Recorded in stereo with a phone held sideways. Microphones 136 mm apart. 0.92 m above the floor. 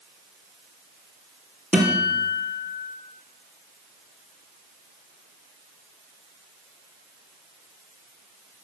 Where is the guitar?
5° right (ahead or behind), 3 m.